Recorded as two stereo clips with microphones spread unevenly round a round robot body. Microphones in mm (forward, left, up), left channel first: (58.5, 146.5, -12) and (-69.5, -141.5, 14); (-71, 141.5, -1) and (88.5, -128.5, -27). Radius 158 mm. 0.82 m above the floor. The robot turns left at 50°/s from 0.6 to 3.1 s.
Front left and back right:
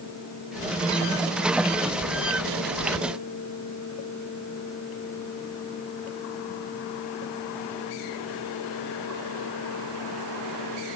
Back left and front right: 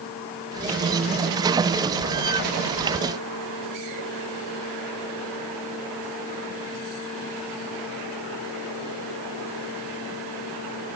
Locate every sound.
Only background noise.